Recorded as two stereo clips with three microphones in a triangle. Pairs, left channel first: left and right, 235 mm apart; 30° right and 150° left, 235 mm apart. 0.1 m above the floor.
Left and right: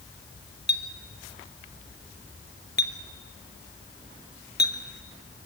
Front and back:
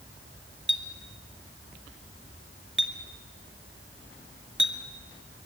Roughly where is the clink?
Behind left.